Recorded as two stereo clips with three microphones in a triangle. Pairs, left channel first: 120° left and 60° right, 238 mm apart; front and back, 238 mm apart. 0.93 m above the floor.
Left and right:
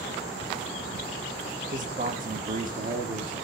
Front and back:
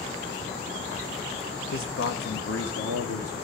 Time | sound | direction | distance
1.7 | a man speaking | 10° right | 0.7 m